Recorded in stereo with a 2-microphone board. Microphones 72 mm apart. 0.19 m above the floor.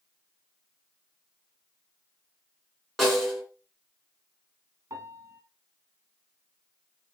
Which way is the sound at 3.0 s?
Centre (ahead or behind).